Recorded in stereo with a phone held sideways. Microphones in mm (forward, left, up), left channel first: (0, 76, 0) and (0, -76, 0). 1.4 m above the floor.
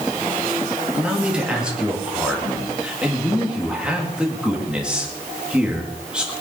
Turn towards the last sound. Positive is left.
turn(degrees=-5)  # may be behind; listen again after turning